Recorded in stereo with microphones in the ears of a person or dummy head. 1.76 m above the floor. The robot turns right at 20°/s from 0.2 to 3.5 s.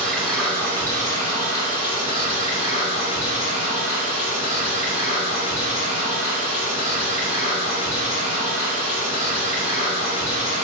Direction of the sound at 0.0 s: 5° left.